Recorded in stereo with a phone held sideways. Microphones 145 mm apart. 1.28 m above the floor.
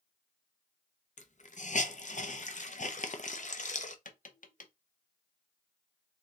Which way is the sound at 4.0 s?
65° left (ahead or behind).